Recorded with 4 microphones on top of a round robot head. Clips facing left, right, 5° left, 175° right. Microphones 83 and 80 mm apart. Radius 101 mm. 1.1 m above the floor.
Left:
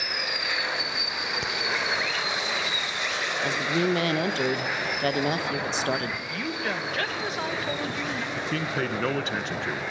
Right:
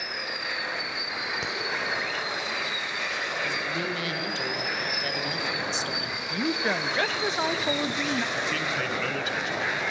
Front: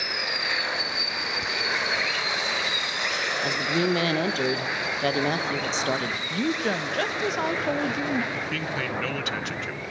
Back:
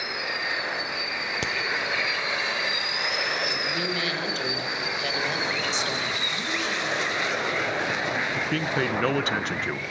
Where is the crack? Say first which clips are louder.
Left 1 dB, back 2 dB; 175° right, 1.0 m.